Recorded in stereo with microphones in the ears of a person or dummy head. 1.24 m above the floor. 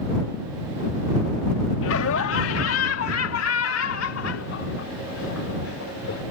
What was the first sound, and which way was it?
Laughter, 80° left.